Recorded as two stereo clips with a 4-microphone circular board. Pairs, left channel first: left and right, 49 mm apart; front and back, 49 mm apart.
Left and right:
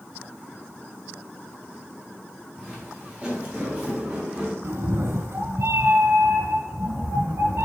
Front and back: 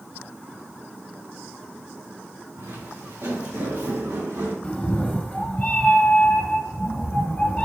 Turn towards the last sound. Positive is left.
turn(degrees=-65)